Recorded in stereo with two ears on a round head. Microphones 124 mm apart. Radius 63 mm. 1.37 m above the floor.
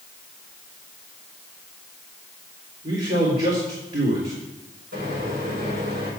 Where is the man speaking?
40° right (ahead or behind), 2.5 m.